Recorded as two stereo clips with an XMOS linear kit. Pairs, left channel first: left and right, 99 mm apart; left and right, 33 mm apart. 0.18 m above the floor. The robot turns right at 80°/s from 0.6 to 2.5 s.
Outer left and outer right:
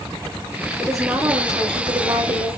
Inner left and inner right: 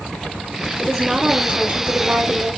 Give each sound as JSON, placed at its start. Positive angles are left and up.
{"t": 0.8, "sound": "a woman speaking", "azimuth_deg": 165, "distance_m": 4.5}